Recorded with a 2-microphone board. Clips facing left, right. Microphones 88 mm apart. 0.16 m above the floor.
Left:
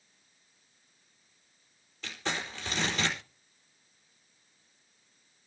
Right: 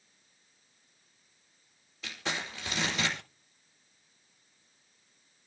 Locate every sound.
2.0 s crumpling: 5° right (ahead or behind), 4.5 m